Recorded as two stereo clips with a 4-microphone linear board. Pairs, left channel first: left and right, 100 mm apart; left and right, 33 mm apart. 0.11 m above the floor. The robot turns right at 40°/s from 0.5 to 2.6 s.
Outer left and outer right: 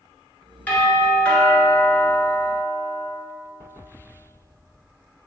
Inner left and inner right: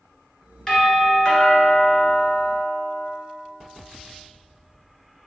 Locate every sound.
0.7 s a doorbell: 20° left (ahead or behind), 1.5 m; by 3.1 s centre (ahead or behind), 1.5 m